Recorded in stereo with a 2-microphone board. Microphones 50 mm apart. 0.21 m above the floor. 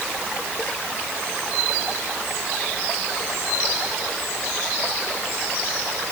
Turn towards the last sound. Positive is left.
No sound to turn to.